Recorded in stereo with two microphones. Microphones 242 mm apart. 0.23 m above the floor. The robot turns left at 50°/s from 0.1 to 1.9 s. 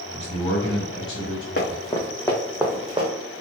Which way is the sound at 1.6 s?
50° left (ahead or behind).